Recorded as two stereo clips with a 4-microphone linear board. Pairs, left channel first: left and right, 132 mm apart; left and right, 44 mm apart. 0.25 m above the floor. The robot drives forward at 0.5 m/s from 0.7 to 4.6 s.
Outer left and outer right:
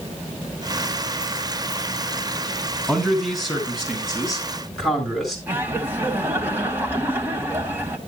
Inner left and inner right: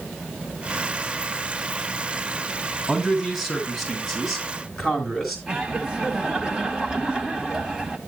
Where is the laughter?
15° right (ahead or behind), 1.5 m.